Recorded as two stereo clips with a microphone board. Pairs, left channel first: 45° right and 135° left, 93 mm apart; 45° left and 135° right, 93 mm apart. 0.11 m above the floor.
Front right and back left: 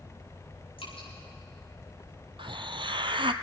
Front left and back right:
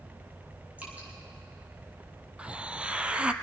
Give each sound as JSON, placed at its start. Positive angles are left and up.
{"t": 0.8, "sound": "dripping", "azimuth_deg": -60, "distance_m": 6.0}
{"t": 2.4, "sound": "a hiss", "azimuth_deg": 150, "distance_m": 0.5}